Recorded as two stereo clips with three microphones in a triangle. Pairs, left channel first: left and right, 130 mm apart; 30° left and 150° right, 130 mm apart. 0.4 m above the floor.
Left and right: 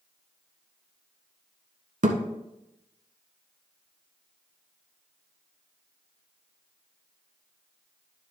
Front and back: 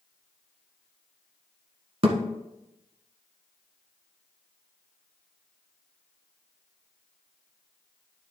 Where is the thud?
110° right, 1.2 m.